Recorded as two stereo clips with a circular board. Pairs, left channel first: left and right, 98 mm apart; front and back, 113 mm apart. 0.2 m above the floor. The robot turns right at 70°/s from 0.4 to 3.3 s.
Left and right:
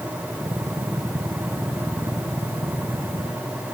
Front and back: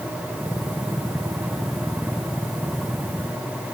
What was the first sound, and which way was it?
Only background noise.